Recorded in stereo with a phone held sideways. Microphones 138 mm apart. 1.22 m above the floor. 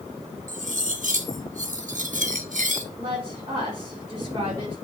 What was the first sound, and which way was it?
Cutlery clinking, 65° right (ahead or behind).